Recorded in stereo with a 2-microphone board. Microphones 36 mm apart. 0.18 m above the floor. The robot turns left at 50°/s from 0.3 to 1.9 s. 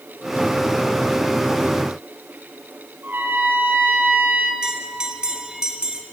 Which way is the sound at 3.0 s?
60° right (ahead or behind).